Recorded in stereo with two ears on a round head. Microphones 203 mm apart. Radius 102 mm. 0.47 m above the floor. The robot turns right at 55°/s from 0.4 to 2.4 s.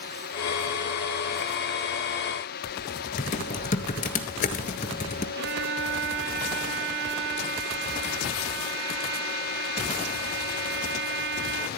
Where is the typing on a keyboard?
35° left (ahead or behind), 1.5 m.